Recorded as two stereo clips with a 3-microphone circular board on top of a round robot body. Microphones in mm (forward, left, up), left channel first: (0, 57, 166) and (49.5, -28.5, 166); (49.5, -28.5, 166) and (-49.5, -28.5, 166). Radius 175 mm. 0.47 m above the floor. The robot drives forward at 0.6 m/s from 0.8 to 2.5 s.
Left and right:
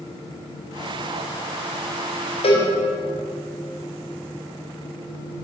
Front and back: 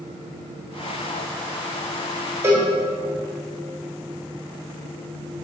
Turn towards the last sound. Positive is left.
turn(degrees=115)